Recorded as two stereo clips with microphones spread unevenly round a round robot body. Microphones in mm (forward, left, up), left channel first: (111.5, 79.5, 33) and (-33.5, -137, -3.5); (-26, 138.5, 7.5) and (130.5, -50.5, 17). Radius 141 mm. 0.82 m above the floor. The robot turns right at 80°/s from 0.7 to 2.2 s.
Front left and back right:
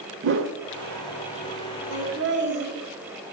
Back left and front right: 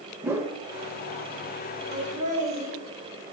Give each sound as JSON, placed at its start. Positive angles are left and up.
{"t": 0.2, "sound": "a whoosh", "azimuth_deg": -120, "distance_m": 0.6}
{"t": 1.9, "sound": "laughter", "azimuth_deg": -105, "distance_m": 1.9}